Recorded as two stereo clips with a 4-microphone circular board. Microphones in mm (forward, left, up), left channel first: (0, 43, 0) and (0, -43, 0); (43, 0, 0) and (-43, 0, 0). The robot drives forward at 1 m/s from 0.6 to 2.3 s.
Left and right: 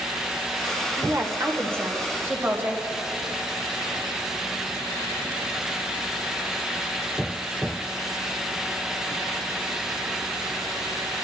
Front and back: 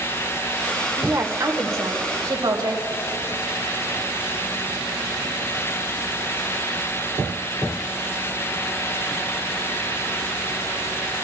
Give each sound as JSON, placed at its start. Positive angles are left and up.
{"t": 1.0, "sound": "a woman speaking", "azimuth_deg": -120, "distance_m": 1.6}